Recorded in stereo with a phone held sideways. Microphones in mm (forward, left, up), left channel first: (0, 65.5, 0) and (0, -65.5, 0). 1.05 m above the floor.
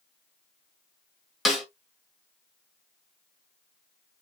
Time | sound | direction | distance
1.4 | a snare drum | centre (ahead or behind) | 2 m